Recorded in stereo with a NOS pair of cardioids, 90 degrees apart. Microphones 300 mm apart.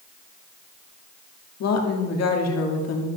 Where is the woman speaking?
60° left, 2 m.